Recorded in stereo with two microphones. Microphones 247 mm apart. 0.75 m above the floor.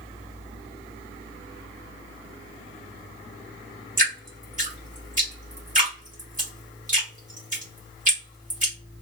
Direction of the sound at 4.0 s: 30° right (ahead or behind).